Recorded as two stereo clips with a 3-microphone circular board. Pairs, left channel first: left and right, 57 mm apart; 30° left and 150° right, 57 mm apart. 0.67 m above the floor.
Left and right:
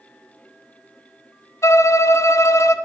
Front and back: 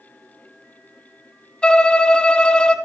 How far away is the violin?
About 0.8 m.